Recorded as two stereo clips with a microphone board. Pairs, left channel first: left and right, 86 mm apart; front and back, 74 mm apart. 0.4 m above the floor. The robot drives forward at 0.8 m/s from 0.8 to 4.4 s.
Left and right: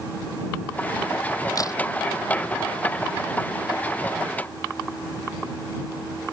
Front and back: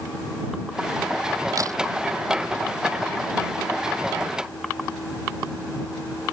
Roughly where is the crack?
Behind left.